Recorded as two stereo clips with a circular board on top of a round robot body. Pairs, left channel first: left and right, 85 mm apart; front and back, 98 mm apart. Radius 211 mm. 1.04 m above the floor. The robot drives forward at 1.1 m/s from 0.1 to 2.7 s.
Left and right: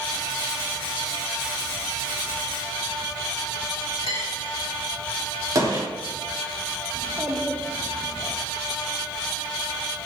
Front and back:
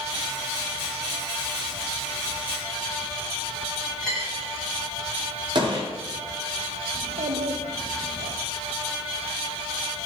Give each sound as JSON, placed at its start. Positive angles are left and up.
{"t": 4.0, "sound": "a dropped coin", "azimuth_deg": 80, "distance_m": 2.5}
{"t": 5.5, "sound": "a gunshot", "azimuth_deg": -140, "distance_m": 2.5}
{"t": 7.0, "sound": "a child speaking", "azimuth_deg": -175, "distance_m": 0.6}